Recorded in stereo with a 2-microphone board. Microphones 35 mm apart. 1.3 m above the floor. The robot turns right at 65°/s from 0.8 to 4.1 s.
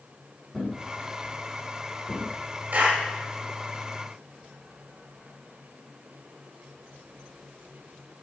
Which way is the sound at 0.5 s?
5° right (ahead or behind).